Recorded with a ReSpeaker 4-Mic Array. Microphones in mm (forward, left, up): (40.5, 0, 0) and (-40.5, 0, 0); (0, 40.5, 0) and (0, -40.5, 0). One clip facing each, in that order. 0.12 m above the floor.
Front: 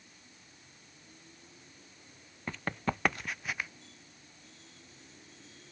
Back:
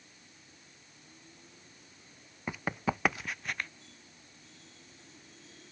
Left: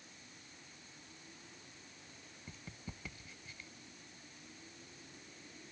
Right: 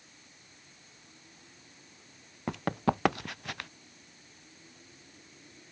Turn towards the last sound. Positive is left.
turn(degrees=-85)